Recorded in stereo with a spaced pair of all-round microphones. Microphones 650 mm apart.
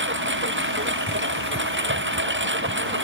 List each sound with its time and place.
0.0 s a lawn mower: 15° right (ahead or behind)